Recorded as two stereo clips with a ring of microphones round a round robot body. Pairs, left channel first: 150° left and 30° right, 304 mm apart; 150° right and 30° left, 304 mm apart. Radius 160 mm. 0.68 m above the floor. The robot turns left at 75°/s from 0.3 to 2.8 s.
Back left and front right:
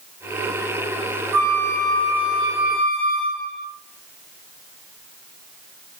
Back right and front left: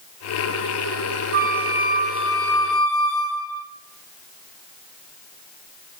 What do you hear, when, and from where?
1.3 s a flute: 15° right, 0.5 m; by 3.6 s 130° right, 0.5 m